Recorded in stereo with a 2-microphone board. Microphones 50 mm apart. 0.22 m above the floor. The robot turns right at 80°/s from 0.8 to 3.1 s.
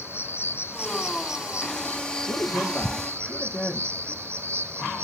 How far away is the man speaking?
About 8 m.